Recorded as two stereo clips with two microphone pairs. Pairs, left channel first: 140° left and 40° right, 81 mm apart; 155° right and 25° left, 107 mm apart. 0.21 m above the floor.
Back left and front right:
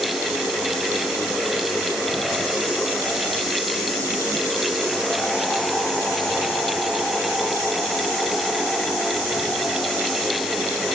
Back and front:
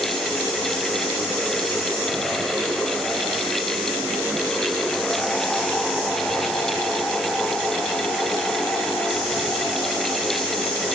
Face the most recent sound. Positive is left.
No sound to turn to.